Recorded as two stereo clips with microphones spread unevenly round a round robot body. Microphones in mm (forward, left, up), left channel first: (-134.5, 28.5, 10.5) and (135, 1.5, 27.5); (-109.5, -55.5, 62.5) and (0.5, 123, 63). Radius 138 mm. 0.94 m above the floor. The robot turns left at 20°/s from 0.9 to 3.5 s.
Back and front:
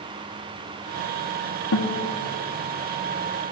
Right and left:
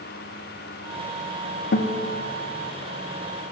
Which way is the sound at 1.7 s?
155° right.